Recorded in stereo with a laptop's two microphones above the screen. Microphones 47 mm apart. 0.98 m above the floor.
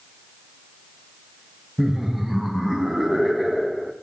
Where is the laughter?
5° right (ahead or behind), 0.6 m.